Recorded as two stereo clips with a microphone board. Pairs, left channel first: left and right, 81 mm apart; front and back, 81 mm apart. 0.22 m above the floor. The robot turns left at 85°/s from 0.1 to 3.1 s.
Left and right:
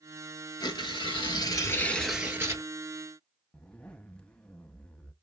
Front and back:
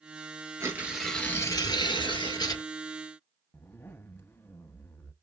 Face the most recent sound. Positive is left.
turn(degrees=25)